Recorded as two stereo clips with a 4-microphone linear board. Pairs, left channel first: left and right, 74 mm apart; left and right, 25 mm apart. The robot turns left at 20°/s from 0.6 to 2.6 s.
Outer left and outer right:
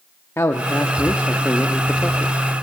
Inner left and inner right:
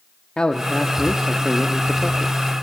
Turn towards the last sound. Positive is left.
turn(degrees=15)